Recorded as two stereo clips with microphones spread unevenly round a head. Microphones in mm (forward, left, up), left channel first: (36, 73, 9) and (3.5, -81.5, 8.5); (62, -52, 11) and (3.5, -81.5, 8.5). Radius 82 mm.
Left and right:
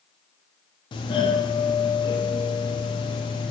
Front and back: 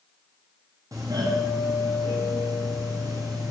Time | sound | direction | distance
0.9 | a doorbell | 140° left | 0.6 m